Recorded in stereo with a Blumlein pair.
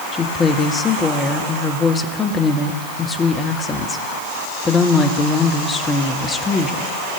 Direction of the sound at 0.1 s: 20° left.